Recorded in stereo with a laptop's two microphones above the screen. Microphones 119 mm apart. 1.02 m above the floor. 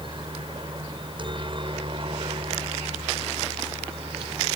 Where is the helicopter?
40° right (ahead or behind); by 4.6 s 50° right (ahead or behind).